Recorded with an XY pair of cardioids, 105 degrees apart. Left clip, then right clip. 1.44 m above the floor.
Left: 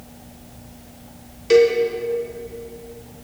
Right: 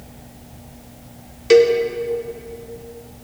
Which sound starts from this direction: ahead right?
A cowbell, at 1.5 s.